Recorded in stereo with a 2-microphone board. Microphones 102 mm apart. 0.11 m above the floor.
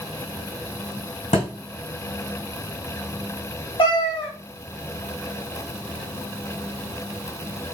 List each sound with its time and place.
1.3 s a thud: 75° left (ahead or behind), 2.5 m
3.8 s a cat meowing: 60° left (ahead or behind), 1.5 m